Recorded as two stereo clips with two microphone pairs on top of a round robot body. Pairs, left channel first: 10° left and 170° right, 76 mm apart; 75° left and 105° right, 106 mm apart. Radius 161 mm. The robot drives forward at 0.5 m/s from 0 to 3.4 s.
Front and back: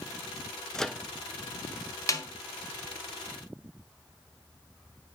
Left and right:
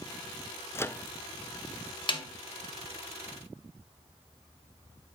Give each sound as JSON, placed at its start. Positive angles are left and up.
{"t": 0.8, "sound": "a microwave", "azimuth_deg": 55, "distance_m": 0.7}
{"t": 2.1, "sound": "a snare drum", "azimuth_deg": 40, "distance_m": 1.7}